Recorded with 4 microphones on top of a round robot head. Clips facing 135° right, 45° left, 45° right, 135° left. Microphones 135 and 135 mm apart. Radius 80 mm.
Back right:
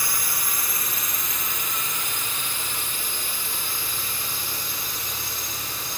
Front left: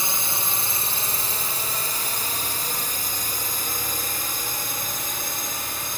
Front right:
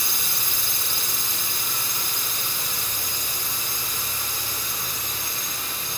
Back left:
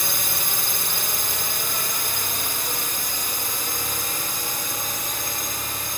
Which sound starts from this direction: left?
A drone, at 0.0 s.